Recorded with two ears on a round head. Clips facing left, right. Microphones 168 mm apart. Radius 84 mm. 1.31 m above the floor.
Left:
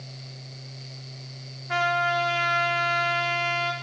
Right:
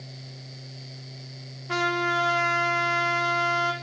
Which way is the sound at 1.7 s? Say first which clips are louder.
Left 1 dB; 70° right (ahead or behind).